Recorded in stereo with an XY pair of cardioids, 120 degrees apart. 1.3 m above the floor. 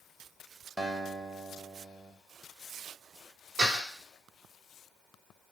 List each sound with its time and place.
0.8 s a guitar: 15° right, 1.2 m
3.6 s a door slam: 55° right, 2.0 m